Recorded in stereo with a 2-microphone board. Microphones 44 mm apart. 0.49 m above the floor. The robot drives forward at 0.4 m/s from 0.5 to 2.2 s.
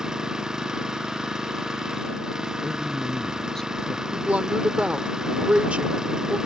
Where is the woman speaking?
25° right (ahead or behind).